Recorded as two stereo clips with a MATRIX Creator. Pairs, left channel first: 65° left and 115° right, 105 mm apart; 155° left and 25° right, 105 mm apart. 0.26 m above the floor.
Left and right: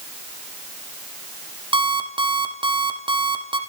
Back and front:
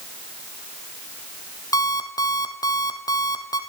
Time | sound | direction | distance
1.7 | an alarm clock | 150° right | 3.5 m